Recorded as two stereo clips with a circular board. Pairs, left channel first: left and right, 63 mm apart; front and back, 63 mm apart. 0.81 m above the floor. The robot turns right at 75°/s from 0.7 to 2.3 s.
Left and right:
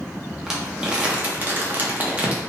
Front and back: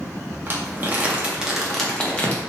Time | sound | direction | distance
0.5 | crumpling | 165° right | 0.7 m